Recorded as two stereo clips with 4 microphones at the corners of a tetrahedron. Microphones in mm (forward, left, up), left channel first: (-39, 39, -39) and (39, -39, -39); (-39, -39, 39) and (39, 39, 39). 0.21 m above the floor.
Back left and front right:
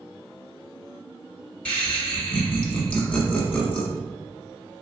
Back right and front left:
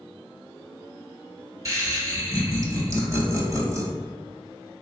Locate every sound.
1.6 s laughter: 70° left, 1.2 m